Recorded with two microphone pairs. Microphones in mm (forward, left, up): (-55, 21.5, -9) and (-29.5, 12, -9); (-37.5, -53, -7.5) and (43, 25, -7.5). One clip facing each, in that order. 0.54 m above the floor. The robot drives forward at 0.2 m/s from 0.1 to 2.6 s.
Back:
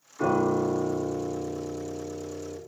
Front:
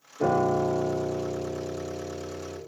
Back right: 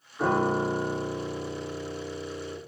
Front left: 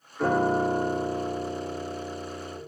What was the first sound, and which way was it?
A piano, 145° left.